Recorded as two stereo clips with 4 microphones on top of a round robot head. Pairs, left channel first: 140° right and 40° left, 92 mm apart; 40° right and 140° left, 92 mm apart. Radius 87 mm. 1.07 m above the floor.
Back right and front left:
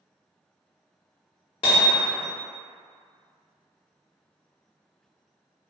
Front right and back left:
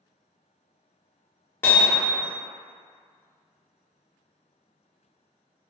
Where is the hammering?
110° right, 0.7 m.